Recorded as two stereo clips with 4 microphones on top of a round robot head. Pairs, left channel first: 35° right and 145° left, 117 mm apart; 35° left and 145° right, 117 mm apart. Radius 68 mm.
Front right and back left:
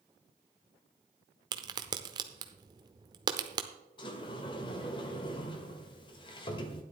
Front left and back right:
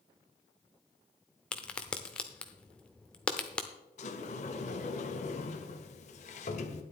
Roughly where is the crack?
Behind left.